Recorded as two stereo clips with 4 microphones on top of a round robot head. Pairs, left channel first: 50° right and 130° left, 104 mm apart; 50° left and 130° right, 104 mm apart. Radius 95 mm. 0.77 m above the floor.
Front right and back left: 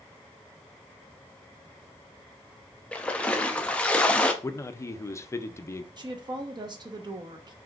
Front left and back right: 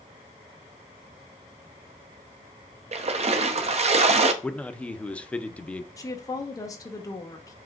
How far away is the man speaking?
About 0.5 m.